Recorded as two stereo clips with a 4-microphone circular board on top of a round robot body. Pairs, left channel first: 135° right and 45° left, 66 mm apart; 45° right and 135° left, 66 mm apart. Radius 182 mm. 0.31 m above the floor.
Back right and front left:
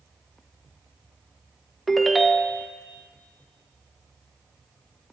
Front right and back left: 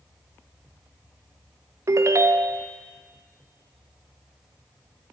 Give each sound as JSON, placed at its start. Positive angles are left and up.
{"t": 1.9, "sound": "a ringtone", "azimuth_deg": 135, "distance_m": 0.5}